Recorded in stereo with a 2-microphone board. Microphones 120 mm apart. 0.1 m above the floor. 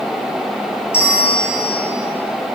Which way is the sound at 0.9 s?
20° left (ahead or behind).